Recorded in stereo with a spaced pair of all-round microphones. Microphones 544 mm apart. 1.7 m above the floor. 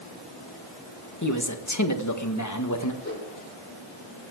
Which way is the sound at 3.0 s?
20° left (ahead or behind).